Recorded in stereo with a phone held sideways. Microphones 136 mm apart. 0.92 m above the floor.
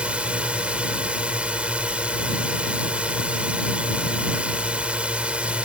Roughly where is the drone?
Centre.